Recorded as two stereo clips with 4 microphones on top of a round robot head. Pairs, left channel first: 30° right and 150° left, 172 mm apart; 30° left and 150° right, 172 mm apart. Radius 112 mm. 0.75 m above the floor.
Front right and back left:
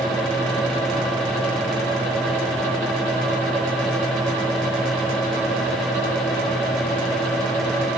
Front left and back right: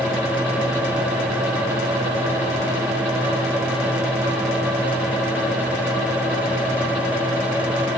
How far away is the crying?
I don't hear crying.